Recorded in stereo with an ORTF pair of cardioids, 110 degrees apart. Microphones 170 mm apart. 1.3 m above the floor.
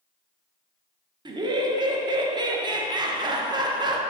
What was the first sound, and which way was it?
Laughter, 25° right.